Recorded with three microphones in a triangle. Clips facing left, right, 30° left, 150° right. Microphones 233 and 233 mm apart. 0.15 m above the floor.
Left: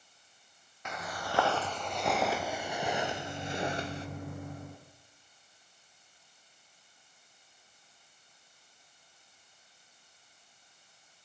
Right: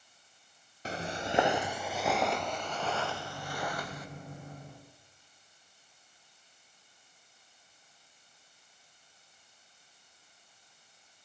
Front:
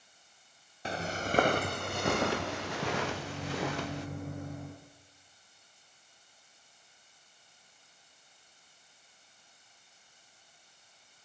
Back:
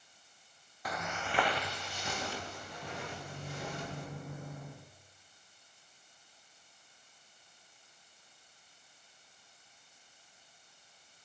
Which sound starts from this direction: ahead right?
Footsteps, at 0.8 s.